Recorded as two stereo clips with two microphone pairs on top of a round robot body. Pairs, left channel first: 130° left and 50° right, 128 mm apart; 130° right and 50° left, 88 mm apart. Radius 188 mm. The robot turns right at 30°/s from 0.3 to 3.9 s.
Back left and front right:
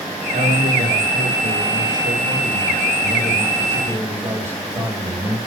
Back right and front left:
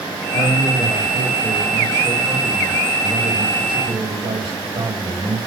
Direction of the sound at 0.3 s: 85° right.